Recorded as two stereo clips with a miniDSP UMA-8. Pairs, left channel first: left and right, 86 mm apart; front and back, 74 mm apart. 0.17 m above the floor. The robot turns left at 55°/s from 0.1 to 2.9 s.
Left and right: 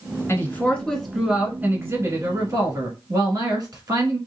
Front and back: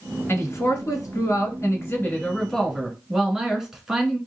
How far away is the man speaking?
About 1.5 m.